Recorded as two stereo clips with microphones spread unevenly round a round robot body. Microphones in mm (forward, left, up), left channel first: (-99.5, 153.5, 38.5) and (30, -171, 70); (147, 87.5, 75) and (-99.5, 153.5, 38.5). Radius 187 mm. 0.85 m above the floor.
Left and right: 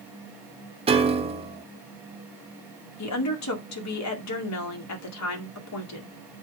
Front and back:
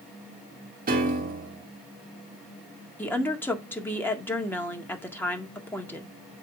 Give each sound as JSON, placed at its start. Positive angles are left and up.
{"t": 0.9, "sound": "a piano", "azimuth_deg": -145, "distance_m": 1.1}
{"t": 3.0, "sound": "a woman speaking", "azimuth_deg": 70, "distance_m": 2.0}